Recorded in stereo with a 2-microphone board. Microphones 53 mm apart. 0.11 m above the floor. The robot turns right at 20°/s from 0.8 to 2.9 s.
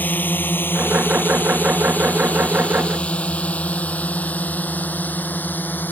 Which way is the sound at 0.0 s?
35° left (ahead or behind).